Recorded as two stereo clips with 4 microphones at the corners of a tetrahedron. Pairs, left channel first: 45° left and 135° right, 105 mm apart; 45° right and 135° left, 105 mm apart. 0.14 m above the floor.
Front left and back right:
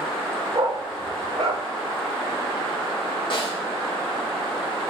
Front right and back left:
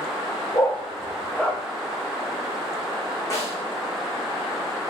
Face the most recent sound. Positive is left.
turn(degrees=10)